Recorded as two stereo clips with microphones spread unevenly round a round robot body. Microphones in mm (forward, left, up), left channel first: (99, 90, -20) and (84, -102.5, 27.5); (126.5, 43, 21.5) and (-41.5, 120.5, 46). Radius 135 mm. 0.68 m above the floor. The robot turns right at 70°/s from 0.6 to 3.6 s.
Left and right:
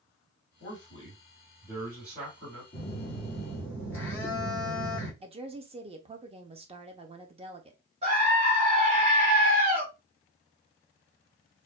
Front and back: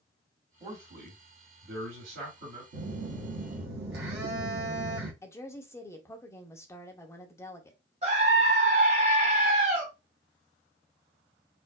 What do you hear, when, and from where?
0.6 s a man speaking: 85° left, 2.5 m; by 2.6 s 135° right, 2.5 m
2.7 s a phone buzzing: 135° left, 1.2 m; by 5.1 s 165° right, 1.2 m
5.2 s a woman speaking: 45° right, 0.8 m
8.0 s a scream: 160° right, 1.0 m